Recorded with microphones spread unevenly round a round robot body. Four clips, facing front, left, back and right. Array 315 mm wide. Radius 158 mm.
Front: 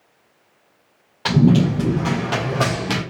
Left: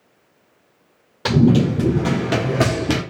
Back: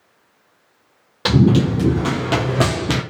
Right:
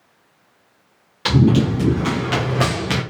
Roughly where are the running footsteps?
Behind left.